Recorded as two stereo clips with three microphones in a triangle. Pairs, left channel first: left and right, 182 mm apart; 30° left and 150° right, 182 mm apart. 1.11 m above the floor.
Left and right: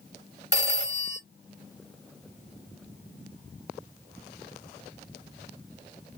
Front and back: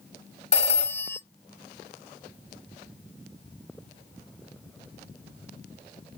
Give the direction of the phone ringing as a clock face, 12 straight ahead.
9 o'clock.